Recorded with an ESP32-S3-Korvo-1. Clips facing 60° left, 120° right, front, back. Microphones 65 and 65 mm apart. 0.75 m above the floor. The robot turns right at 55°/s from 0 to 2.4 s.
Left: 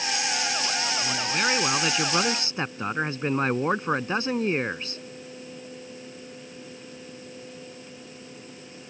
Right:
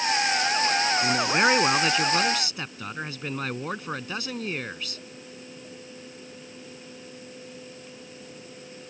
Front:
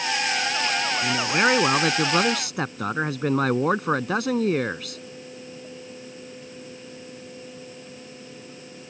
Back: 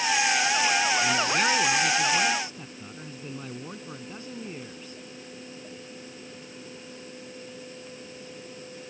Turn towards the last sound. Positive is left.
turn(degrees=0)